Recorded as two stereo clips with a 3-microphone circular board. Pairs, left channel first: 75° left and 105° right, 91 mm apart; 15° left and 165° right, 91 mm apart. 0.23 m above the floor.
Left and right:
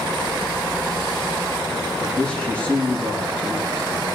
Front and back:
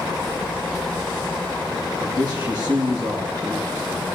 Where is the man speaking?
155° left, 8.5 m.